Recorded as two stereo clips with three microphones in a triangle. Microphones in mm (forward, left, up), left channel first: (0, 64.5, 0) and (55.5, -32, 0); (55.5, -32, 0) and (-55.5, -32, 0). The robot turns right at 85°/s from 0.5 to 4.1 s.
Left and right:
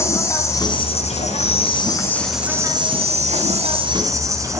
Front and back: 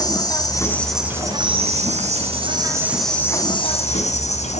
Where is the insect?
55° left, 4 m; by 4.6 s straight ahead, 4 m.